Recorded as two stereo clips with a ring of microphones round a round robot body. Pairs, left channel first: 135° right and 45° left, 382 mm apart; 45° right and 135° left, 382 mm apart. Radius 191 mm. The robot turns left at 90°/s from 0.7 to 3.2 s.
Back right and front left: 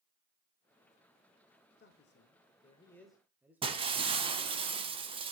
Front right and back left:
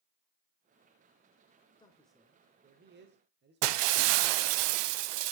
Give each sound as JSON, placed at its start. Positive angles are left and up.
{"t": 1.8, "sound": "a man speaking", "azimuth_deg": -110, "distance_m": 0.9}
{"t": 3.6, "sound": "breaking glass", "azimuth_deg": 120, "distance_m": 0.6}